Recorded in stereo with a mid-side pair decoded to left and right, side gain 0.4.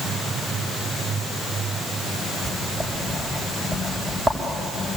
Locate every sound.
2.4 s writing: 25° right, 6 m